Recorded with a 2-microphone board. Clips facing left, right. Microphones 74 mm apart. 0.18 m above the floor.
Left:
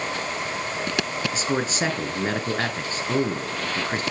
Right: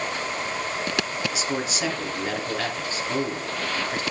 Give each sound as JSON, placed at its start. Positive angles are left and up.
{"t": 1.3, "sound": "a man speaking", "side_deg": 40, "distance_m": 2.0}